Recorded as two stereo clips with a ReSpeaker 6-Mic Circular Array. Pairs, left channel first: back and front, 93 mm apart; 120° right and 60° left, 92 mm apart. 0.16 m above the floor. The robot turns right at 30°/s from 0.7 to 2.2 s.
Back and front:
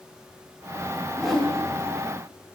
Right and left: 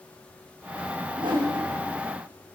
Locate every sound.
1.2 s a whoosh: 85° left, 4 m; by 1.5 s 95° left, 4 m